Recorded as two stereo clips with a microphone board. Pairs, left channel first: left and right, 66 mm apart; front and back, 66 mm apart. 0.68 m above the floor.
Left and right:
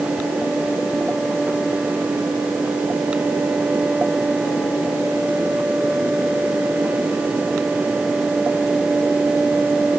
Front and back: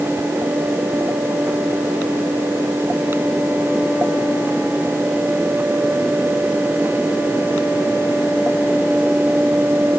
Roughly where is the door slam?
No door slam in this recording.